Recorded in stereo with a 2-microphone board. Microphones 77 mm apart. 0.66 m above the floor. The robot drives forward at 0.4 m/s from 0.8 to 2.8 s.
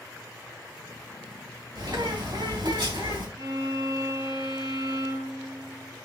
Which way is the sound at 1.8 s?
85° right.